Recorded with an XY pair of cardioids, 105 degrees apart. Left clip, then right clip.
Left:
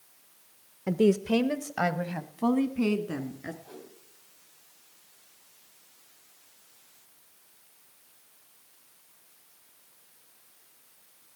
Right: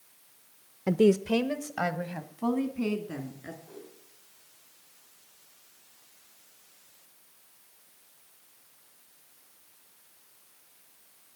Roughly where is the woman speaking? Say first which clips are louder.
Right 1 dB; ahead.